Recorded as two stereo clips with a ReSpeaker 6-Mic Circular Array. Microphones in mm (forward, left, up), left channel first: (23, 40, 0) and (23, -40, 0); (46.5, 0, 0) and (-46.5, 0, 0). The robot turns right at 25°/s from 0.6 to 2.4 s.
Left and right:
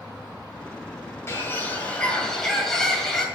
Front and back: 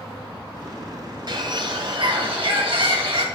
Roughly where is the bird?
Behind left.